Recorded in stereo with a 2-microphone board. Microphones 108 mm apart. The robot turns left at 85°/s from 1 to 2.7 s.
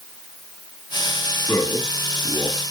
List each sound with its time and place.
1.5 s a man speaking: 155° left, 1.9 m; by 2.6 s 55° left, 1.9 m